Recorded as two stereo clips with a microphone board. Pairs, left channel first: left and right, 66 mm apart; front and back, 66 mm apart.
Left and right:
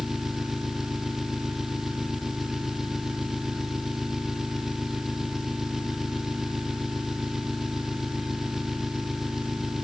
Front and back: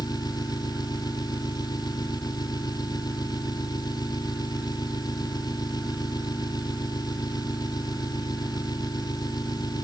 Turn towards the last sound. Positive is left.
turn(degrees=-5)